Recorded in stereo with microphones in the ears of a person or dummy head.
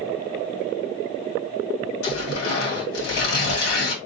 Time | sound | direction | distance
2.0 | tearing paper | 80° left | 1.9 m